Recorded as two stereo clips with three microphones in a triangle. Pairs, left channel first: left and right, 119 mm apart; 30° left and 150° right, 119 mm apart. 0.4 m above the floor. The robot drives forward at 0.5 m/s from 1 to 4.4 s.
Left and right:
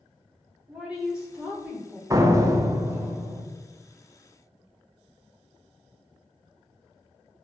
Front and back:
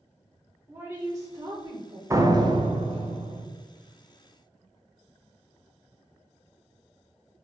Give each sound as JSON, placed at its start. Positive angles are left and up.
{"t": 0.7, "sound": "a woman speaking", "azimuth_deg": -155, "distance_m": 0.9}
{"t": 2.1, "sound": "a door slam", "azimuth_deg": -115, "distance_m": 0.6}